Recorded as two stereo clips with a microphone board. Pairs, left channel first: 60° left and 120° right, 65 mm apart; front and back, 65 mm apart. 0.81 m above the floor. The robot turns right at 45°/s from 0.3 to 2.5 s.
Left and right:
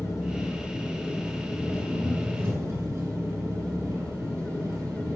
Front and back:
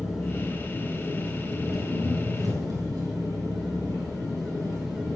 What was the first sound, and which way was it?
An engine running, 100° left.